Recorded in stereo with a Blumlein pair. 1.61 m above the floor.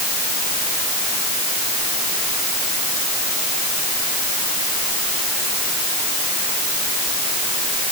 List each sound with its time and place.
Only background noise.